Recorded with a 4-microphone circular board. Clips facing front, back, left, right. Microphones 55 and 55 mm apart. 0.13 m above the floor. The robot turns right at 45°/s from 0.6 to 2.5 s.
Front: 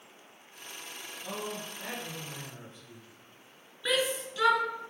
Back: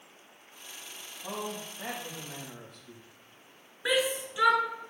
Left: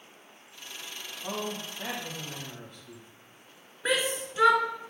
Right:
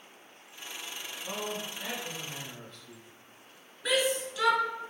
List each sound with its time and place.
1.2 s a man speaking: 110° left, 6 m; by 3.0 s 165° left, 6 m
3.9 s a shout: 120° left, 1.5 m